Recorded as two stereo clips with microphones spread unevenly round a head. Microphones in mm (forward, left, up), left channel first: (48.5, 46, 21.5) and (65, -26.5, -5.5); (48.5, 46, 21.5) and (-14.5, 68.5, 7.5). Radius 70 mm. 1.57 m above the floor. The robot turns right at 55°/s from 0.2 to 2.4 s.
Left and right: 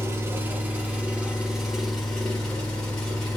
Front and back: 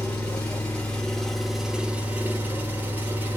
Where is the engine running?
25° right, 1.3 m; by 3.4 s 95° left, 1.3 m.